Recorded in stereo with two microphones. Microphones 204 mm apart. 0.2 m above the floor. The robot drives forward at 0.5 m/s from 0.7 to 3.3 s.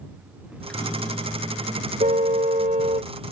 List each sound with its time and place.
0.5 s a microwave: 5° left (ahead or behind)
2.0 s a car horn: 35° right (ahead or behind)